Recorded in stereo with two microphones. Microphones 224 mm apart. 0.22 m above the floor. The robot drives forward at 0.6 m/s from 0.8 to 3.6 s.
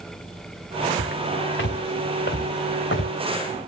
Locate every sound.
1.0 s footsteps: 50° left (ahead or behind), 1.7 m; by 3.1 s 55° left (ahead or behind), 1.2 m